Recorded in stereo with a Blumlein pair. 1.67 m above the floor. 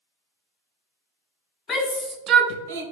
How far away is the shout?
About 0.6 m.